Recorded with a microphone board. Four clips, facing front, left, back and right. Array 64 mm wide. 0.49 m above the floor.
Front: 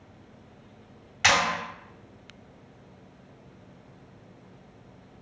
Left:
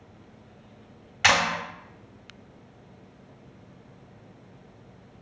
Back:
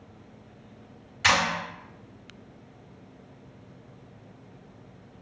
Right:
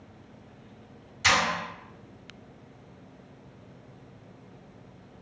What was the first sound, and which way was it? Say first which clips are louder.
A clap: left 2 dB, even; 60° left.